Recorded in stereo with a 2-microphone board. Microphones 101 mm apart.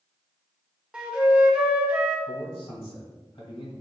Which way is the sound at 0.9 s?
10° right (ahead or behind).